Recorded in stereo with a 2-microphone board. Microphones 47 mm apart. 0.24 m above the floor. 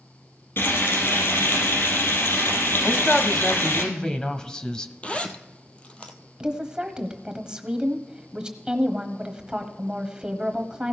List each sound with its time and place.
0.6 s frying: 60° left (ahead or behind), 4 m
2.8 s a man speaking: 15° left (ahead or behind), 1.0 m
5.0 s a zipper: 30° left (ahead or behind), 1.0 m
6.4 s a woman speaking: 20° right (ahead or behind), 1.1 m